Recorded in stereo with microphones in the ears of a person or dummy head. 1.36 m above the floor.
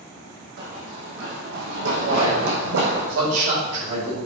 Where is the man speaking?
80° right, 4 m.